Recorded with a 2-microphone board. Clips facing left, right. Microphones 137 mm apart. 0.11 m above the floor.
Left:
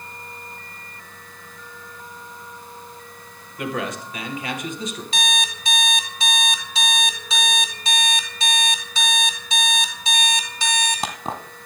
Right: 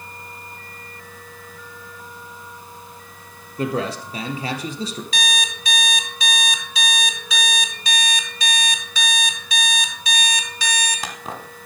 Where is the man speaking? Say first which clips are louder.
Right 3 dB; 35° right (ahead or behind), 2.5 m.